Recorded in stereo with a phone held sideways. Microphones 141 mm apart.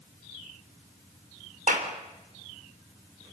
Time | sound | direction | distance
1.7 | a clap | 70° right (ahead or behind) | 3.5 m